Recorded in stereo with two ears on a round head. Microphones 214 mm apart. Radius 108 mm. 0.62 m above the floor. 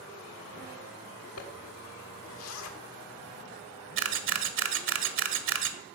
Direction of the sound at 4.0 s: 60° right (ahead or behind).